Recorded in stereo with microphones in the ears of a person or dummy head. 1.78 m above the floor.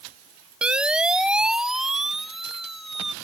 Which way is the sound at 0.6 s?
5° right (ahead or behind).